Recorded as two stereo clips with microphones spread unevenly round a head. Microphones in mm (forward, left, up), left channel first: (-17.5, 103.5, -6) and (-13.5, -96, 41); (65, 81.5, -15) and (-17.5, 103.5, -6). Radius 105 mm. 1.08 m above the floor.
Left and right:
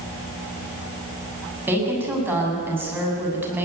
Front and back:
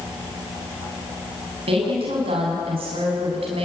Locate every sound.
1.7 s a woman speaking: 170° right, 7 m